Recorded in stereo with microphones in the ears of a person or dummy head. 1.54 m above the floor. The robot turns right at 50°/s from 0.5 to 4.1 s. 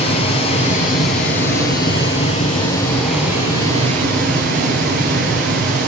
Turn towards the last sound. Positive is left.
turn(degrees=-130)